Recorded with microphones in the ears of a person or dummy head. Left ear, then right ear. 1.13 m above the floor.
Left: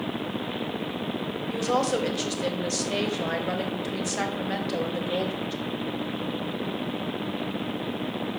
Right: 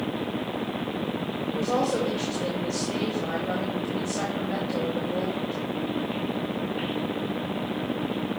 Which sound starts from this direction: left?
A woman speaking, at 1.5 s.